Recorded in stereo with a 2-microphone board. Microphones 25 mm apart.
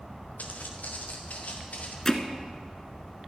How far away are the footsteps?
About 3 m.